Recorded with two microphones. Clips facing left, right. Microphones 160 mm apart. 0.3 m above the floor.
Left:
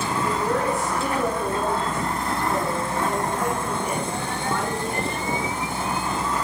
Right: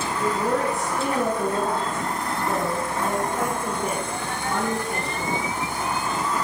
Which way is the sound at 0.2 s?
85° right.